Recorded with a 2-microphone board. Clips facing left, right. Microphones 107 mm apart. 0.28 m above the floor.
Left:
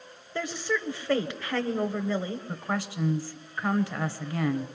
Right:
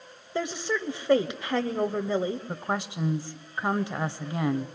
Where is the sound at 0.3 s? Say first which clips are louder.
Right 1 dB; 20° right (ahead or behind), 0.9 m.